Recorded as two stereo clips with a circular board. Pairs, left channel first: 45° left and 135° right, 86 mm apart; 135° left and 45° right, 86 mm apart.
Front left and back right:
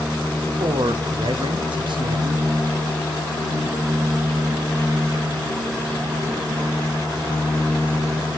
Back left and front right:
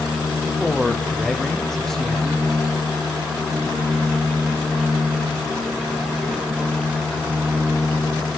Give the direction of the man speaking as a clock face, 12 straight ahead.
5 o'clock.